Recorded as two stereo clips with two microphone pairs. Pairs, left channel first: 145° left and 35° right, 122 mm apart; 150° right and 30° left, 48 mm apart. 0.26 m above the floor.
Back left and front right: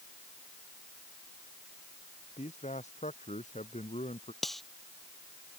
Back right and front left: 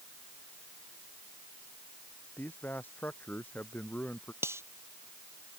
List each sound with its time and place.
2.4 s a man speaking: 160° left
4.4 s cutlery clinking: 60° left